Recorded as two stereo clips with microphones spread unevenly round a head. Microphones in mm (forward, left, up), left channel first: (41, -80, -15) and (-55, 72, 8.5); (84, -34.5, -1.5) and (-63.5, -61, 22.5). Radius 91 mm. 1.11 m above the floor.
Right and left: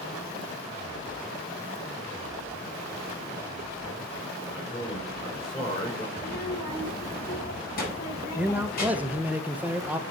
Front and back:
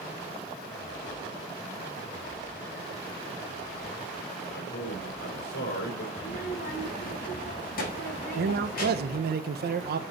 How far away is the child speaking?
About 4 m.